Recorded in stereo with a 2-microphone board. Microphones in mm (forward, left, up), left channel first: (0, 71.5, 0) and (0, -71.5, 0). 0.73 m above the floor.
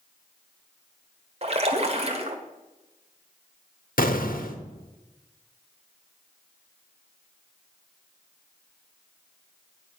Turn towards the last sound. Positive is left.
turn(degrees=80)